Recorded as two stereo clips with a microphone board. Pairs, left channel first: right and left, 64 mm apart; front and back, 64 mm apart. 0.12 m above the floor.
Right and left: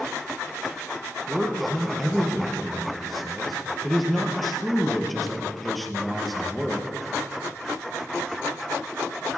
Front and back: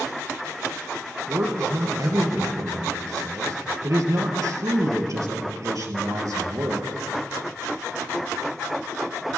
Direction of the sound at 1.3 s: Straight behind.